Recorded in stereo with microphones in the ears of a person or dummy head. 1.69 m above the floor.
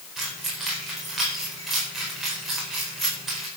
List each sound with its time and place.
0.2 s keys jangling: centre (ahead or behind), 4.5 m